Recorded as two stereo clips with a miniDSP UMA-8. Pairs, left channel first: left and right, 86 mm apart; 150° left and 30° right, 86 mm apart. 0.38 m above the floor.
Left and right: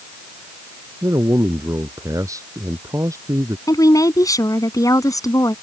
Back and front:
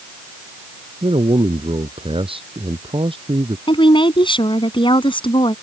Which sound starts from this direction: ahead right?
A man speaking, at 1.0 s.